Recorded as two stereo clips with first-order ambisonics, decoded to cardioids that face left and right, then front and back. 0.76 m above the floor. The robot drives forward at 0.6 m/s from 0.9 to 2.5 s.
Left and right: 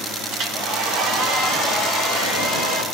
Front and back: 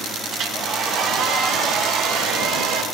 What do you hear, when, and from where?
0.3 s a hair dryer: 135° right, 1.5 m; by 2.8 s 150° right, 2 m